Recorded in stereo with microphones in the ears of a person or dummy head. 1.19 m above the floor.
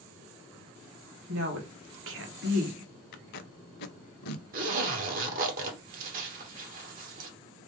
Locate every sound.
1.3 s a woman speaking: 60° right (ahead or behind), 1.3 m; by 2.9 s 45° right (ahead or behind), 1.3 m
3.1 s tape being pulled: 60° left (ahead or behind), 0.5 m
4.5 s a zipper: 45° right (ahead or behind), 1.3 m